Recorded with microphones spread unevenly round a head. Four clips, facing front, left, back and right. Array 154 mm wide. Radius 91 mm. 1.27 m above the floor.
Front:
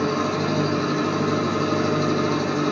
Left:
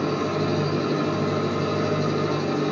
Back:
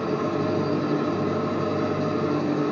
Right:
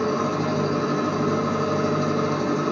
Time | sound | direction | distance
0.0 | an engine running | 100° right | 5.5 m